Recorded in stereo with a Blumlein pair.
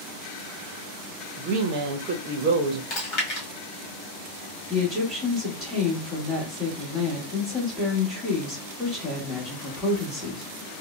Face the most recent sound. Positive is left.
turn(degrees=0)